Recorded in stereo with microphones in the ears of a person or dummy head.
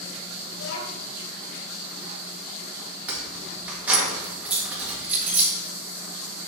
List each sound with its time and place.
0.5 s a child speaking: 75° left (ahead or behind), 2.5 m
3.1 s keys jangling: 5° right (ahead or behind), 1.6 m